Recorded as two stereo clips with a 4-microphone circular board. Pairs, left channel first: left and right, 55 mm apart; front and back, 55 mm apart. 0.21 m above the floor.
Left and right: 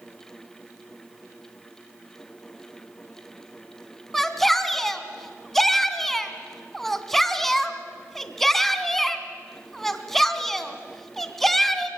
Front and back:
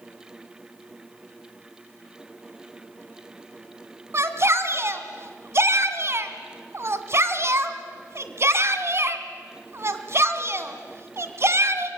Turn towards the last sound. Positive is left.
turn(degrees=175)